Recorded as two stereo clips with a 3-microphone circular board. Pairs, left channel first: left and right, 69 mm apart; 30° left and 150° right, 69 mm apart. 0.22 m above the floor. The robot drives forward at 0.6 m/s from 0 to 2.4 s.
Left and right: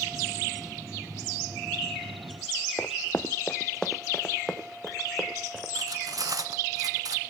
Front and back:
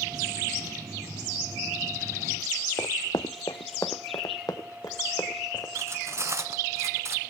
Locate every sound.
2.8 s running footsteps: 40° left, 0.5 m; by 5.7 s 5° right, 2.5 m
5.8 s cutlery clinking: 110° right, 1.5 m